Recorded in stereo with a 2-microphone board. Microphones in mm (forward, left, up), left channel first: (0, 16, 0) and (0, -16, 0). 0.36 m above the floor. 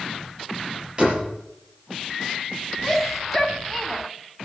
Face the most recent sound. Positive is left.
turn(degrees=5)  # may be behind; listen again after turning